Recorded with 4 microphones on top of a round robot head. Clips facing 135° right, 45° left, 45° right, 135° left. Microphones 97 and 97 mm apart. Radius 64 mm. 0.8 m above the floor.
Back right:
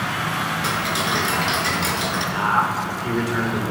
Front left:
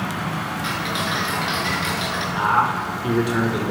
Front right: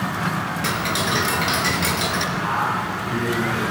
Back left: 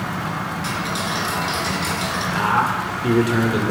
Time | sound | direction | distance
0.6 | ticking | 80° right | 2.5 m
2.4 | a man speaking | 125° left | 2.5 m